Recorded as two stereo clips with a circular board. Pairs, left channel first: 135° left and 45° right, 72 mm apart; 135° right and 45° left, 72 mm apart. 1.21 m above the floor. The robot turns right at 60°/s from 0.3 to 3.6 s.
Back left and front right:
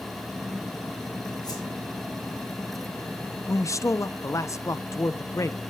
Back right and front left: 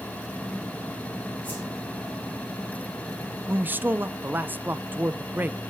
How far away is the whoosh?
About 4 m.